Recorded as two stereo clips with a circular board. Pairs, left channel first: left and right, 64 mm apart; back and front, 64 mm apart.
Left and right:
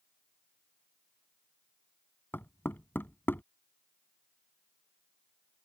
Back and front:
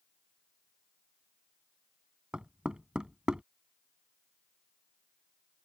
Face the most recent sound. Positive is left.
turn(degrees=65)